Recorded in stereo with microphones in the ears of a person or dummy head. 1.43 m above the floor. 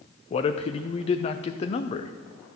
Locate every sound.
0.3 s a man speaking: 30° left (ahead or behind), 0.6 m